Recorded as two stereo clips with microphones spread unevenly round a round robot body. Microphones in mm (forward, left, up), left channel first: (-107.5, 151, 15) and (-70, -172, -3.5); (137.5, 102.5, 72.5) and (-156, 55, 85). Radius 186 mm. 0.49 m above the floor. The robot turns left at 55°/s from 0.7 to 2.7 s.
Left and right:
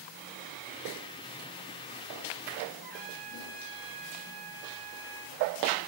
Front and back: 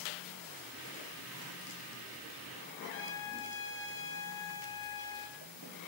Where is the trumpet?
30° right, 2 m.